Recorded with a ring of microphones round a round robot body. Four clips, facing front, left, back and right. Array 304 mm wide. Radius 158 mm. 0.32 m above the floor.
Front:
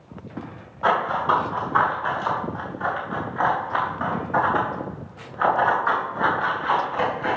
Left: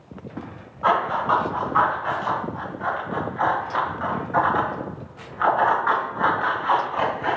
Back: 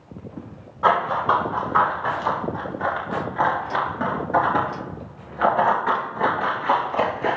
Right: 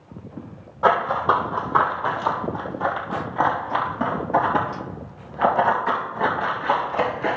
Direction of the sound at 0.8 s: 110° right.